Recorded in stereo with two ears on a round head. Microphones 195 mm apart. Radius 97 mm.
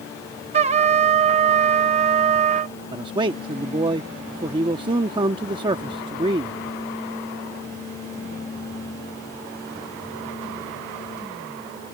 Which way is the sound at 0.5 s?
30° right (ahead or behind).